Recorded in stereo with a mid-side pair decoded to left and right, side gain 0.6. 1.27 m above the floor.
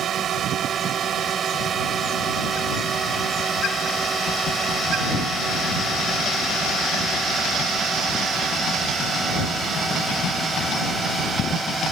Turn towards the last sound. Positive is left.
turn(degrees=-10)